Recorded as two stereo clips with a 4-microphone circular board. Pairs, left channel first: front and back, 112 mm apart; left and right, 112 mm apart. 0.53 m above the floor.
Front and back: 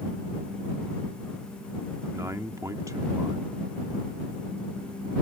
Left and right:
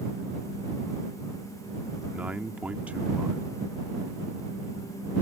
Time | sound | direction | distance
2.1 | a man speaking | 155° right | ?